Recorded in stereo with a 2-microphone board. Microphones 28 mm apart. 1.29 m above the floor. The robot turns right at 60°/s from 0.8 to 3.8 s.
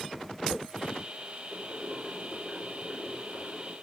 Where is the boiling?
30° right, 3.5 m; by 3.7 s 100° left, 3.5 m.